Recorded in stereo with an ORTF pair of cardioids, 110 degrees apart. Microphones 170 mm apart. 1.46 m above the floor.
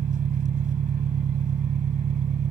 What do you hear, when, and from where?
0.0 s an engine running: 45° right